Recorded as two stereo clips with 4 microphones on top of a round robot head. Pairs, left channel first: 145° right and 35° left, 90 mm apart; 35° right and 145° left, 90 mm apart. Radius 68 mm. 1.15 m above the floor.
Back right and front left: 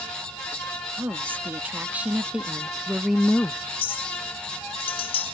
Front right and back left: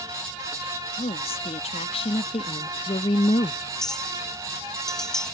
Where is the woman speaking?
35° right; by 3.6 s 65° right.